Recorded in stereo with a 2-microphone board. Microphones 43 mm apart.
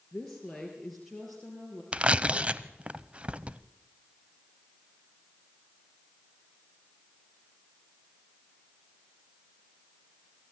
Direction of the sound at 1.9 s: 30° right (ahead or behind).